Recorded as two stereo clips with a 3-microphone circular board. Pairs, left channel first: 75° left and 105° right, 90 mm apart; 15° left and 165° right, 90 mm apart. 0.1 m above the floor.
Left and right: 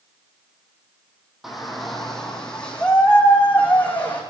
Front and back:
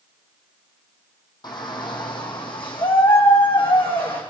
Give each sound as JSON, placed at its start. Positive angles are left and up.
{"t": 1.4, "sound": "a shout", "azimuth_deg": -15, "distance_m": 3.5}